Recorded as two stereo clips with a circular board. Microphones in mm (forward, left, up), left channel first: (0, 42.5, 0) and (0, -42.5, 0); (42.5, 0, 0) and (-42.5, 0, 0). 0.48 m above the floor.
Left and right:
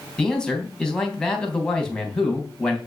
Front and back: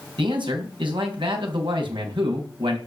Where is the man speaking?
170° left, 3.5 m.